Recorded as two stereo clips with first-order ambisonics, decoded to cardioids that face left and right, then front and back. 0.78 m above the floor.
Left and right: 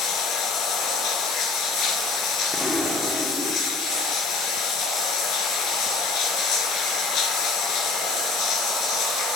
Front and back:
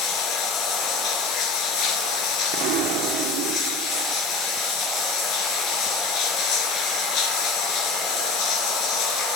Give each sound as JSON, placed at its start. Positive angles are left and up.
{"t": 0.0, "sound": "running water", "azimuth_deg": 45, "distance_m": 2.5}
{"t": 2.5, "sound": "an explosion", "azimuth_deg": 170, "distance_m": 1.1}